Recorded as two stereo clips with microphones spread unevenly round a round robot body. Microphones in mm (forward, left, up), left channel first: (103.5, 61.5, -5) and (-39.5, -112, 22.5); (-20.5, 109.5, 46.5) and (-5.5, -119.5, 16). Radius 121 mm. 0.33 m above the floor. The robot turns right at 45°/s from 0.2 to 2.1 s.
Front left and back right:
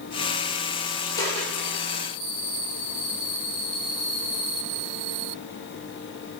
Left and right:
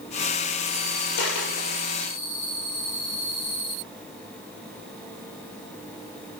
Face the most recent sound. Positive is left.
turn(degrees=170)